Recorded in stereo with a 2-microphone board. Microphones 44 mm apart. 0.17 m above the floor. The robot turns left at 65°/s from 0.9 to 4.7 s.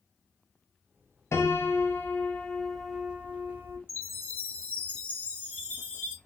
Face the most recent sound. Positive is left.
turn(degrees=25)